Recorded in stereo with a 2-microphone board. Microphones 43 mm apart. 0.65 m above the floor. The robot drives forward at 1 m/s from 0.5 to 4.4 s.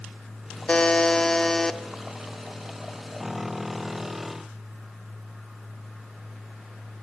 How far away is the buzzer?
About 0.9 m.